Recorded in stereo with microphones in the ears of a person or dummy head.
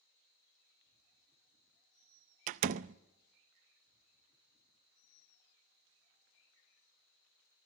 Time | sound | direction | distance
2.5 | a door slam | 45° right (ahead or behind) | 0.5 m